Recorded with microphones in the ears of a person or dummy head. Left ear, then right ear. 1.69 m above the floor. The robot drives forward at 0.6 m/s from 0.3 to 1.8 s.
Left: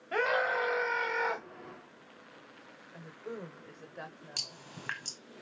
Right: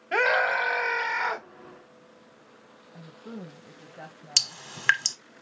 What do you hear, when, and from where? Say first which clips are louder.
0.1 s a scream: right 6 dB; 25° right (ahead or behind), 1.3 m; by 1.5 s 15° right (ahead or behind), 2.0 m
2.9 s a woman speaking: left 1 dB; 70° left (ahead or behind), 0.8 m
4.4 s dripping: right 12 dB; 50° right (ahead or behind), 1.0 m